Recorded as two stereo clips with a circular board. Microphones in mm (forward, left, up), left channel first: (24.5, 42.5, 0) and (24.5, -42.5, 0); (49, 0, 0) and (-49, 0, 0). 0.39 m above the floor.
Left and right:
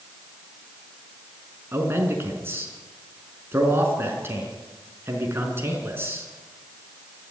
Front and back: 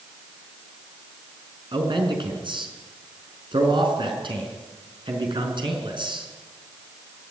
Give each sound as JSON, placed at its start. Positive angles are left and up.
{"t": 1.7, "sound": "a man speaking", "azimuth_deg": -150, "distance_m": 5.0}